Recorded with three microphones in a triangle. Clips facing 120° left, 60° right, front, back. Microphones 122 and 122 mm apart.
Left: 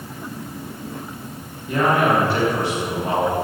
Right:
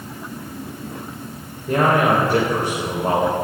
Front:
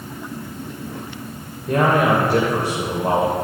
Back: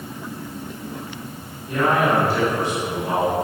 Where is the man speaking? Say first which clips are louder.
Right 1 dB, front 3 dB; 25° right, 3 m.